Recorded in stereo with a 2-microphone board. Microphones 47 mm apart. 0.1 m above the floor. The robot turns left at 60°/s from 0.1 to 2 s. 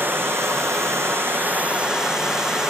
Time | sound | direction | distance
0.0 | running water | 50° right | 1.1 m